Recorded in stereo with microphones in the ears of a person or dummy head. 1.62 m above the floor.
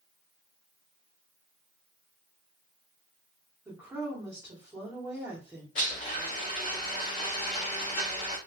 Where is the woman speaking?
15° right (ahead or behind), 1.2 m.